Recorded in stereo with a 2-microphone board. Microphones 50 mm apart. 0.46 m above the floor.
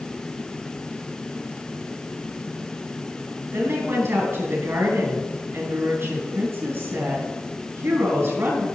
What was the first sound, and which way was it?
A woman speaking, 50° right (ahead or behind).